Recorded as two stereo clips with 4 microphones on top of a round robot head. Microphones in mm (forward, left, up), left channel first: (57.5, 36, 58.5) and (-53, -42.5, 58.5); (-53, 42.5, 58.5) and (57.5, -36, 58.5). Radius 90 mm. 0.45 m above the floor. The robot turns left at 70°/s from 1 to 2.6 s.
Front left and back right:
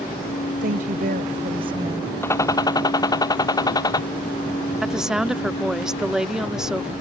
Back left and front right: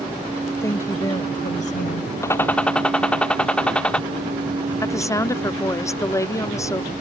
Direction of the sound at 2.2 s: 95° left.